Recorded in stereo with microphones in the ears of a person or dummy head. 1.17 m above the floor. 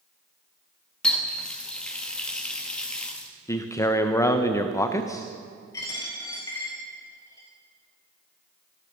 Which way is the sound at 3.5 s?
15° left (ahead or behind).